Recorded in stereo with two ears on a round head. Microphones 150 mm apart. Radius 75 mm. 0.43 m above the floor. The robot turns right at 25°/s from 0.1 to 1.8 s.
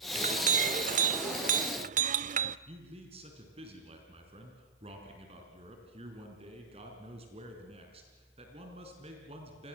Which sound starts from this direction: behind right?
A clink, at 0.1 s.